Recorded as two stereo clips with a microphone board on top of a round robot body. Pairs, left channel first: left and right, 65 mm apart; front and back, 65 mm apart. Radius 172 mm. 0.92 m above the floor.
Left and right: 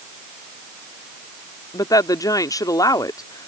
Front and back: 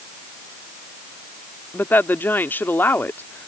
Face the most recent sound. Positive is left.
turn(degrees=65)